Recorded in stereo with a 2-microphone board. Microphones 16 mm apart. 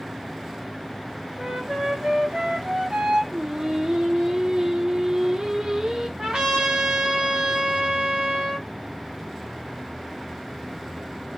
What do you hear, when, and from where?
1.4 s a flute: 65° right (ahead or behind), 3 m
3.3 s singing: 40° right (ahead or behind), 0.9 m
6.2 s a trumpet: 60° right (ahead or behind), 3.5 m